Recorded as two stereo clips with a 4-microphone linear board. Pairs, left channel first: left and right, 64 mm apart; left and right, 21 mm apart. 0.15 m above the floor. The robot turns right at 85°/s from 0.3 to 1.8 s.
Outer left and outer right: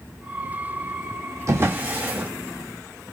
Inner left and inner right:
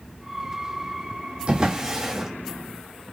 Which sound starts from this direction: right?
A drawer, at 1.5 s.